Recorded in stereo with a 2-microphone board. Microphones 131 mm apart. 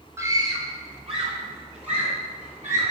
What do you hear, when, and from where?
0.2 s a scream: 20° right (ahead or behind), 0.9 m; by 2.9 s 65° right (ahead or behind), 2.5 m